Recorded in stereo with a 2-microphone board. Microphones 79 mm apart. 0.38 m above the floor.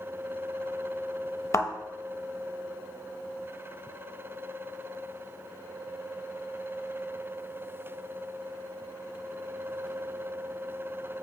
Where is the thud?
40° left (ahead or behind), 0.6 m.